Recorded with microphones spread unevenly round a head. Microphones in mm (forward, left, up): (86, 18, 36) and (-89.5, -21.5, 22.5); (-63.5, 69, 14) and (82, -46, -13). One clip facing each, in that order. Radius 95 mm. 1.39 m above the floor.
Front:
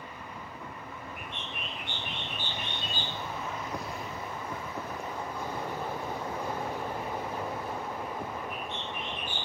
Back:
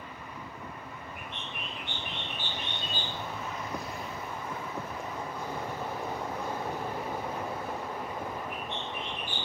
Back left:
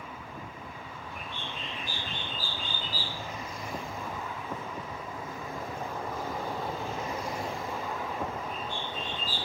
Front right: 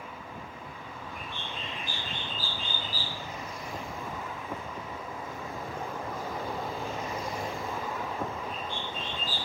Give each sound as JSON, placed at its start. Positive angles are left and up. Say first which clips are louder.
{"t": 1.1, "sound": "a bird", "louder": "even, back left 1 dB", "azimuth_deg": 10, "distance_m": 2.5}